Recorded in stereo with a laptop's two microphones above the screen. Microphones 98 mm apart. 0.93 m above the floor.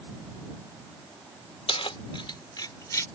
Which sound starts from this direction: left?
Keys jangling, at 1.7 s.